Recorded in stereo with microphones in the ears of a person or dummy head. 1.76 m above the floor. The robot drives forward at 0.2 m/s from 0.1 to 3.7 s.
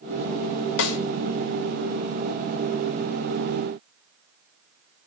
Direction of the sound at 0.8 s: 80° left.